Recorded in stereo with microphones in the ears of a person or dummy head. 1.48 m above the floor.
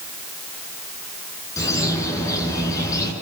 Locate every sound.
1.6 s a bird: 15° left (ahead or behind), 9.5 m